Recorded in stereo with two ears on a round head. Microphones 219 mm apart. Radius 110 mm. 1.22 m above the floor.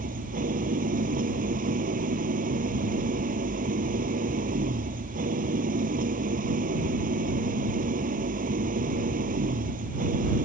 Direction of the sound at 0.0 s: 35° right (ahead or behind).